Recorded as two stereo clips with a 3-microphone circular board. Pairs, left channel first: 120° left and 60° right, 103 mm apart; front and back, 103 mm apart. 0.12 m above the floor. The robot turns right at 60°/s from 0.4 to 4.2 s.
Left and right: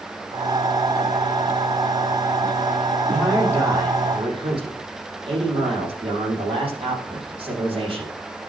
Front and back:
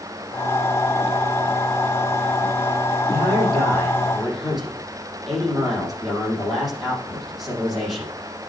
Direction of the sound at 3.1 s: 155° right.